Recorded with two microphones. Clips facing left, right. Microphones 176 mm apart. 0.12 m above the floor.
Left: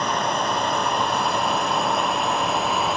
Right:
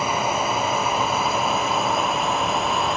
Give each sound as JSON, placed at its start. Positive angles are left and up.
{"t": 0.0, "sound": "a drone", "side_deg": -5}